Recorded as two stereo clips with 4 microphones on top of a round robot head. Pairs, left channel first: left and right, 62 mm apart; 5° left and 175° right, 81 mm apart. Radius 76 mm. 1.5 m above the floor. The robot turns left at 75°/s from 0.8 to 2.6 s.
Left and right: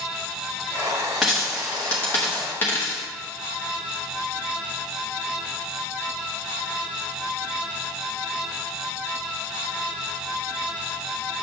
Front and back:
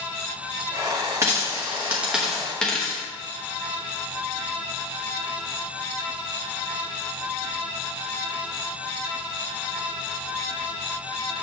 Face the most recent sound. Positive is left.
turn(degrees=75)